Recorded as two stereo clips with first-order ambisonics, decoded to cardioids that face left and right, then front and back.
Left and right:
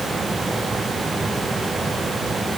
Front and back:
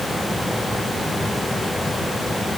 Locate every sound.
Only background noise.